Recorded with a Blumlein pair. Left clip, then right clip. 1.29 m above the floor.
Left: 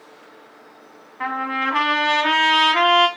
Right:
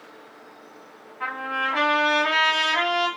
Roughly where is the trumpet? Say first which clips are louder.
Left 3 dB; ahead left.